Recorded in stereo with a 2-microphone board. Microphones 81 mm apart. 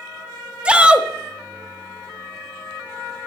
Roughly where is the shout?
Centre.